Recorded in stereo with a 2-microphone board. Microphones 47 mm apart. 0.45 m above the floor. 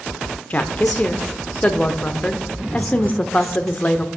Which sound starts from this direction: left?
A woman speaking, at 0.5 s.